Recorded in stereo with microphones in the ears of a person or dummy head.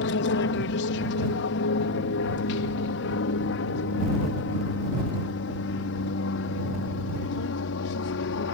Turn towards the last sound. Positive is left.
turn(degrees=60)  # may be behind; listen again after turning